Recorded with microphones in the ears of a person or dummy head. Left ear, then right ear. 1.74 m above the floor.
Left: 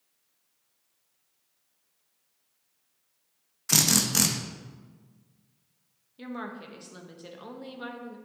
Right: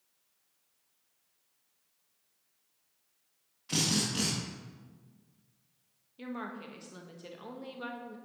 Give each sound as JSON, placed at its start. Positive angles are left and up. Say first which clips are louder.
{"t": 3.7, "sound": "a drill", "louder": "left 7 dB", "side_deg": 50, "distance_m": 0.7}
{"t": 6.2, "sound": "a woman speaking", "louder": "left 3 dB", "side_deg": 0, "distance_m": 0.8}